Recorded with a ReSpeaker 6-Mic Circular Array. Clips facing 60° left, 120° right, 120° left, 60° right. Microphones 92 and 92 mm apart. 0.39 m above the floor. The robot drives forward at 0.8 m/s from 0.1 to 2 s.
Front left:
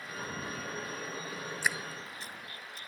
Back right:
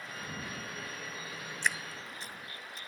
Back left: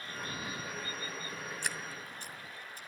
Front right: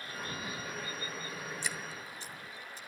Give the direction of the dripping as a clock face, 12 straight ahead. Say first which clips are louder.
Back right 1 dB, even; 7 o'clock.